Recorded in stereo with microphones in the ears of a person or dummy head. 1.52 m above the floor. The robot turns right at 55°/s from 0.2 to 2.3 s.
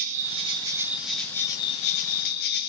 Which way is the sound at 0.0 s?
55° right.